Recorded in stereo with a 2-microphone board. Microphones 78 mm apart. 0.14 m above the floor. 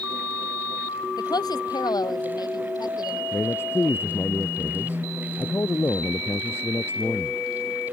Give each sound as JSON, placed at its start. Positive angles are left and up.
{"t": 1.2, "sound": "a woman speaking", "side_deg": 60}
{"t": 3.3, "sound": "a man speaking", "side_deg": 35}